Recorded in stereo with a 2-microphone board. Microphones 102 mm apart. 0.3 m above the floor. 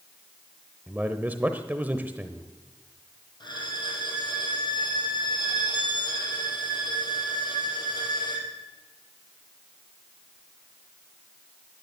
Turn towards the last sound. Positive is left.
turn(degrees=50)  # may be behind; listen again after turning